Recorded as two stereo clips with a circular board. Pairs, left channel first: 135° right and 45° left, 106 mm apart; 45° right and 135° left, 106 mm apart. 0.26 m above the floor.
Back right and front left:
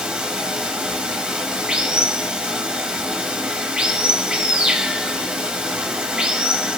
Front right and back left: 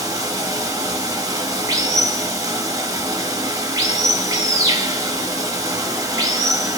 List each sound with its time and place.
0.0 s running water: 120° left, 0.8 m